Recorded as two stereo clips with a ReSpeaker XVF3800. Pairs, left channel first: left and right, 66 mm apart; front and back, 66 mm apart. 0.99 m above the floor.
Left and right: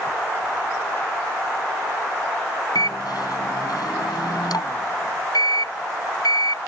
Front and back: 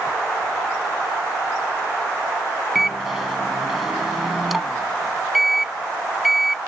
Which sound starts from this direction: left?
A microwave, at 2.8 s.